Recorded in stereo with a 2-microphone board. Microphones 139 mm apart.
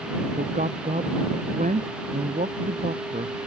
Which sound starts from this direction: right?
A man speaking, at 0.4 s.